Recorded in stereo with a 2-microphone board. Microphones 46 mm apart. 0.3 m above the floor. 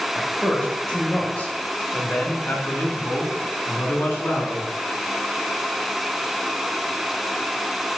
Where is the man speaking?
10° left (ahead or behind), 1.3 m; by 4.7 s 45° left (ahead or behind), 2.5 m.